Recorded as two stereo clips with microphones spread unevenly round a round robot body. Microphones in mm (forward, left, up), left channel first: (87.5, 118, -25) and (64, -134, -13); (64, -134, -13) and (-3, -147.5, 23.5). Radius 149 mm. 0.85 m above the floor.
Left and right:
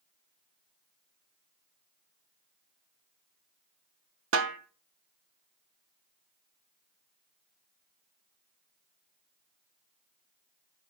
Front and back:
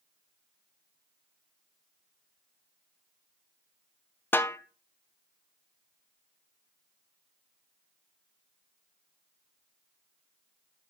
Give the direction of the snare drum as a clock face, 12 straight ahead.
2 o'clock.